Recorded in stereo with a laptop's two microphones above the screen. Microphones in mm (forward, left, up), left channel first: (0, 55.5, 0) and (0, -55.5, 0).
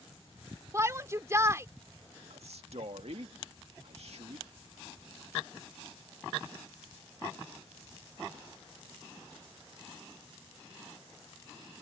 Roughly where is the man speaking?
Right.